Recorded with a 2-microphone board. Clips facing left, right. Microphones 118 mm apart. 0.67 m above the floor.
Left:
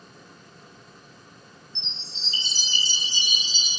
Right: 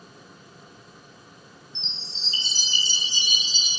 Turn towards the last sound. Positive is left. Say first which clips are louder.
# right 1 dB
turn(degrees=-30)  # may be behind; listen again after turning